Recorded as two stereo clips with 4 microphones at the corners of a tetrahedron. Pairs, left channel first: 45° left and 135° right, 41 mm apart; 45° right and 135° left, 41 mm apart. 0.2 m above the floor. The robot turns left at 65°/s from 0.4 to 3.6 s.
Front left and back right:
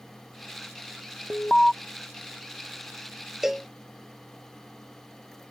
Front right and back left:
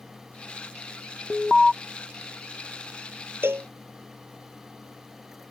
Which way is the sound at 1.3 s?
45° left.